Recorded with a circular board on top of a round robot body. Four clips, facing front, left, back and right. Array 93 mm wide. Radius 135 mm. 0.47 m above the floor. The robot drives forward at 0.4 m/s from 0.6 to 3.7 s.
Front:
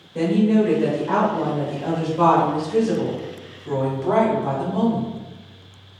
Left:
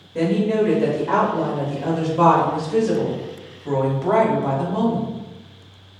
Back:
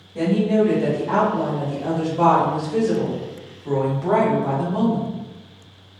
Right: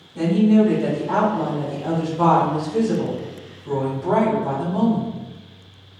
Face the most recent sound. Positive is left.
turn(degrees=120)